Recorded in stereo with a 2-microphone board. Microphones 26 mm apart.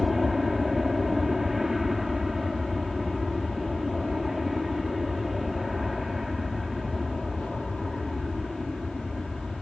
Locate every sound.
0.0 s an aircraft: 10° right (ahead or behind)